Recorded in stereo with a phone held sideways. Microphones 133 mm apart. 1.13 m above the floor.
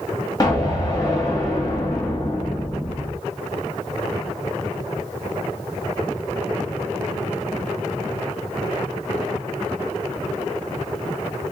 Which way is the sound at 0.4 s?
25° left (ahead or behind).